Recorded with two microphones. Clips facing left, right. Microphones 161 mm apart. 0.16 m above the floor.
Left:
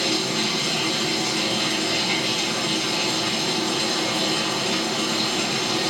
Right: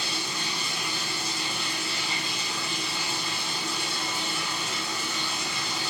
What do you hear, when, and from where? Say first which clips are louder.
0.0 s running water: left 10 dB; 80° left, 1.7 m